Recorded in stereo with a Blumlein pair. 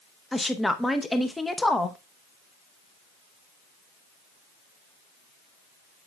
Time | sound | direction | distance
0.3 | a woman speaking | 5° left | 0.7 m